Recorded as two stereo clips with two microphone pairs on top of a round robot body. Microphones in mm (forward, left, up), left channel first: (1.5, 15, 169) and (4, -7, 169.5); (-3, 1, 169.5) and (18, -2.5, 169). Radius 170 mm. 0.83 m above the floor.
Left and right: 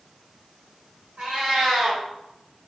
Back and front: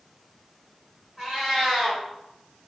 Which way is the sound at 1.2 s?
80° right.